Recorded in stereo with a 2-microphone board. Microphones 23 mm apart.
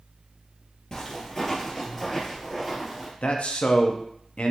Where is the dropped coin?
No dropped coin in this recording.